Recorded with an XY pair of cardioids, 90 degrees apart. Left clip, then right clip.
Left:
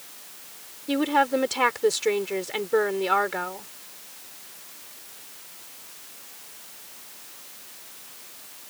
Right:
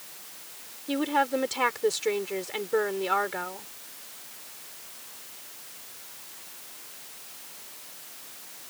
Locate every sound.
0.9 s a woman speaking: 25° left